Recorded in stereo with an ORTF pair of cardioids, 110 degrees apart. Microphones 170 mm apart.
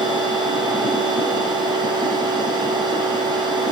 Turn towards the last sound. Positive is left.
turn(degrees=-25)